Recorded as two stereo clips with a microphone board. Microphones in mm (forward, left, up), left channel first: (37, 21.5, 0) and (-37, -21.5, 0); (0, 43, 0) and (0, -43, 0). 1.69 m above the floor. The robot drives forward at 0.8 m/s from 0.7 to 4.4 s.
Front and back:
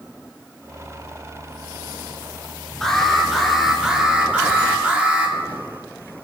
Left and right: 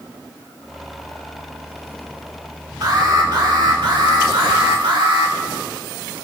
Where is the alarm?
55° right, 3.5 m; by 5.3 s 75° right, 3 m.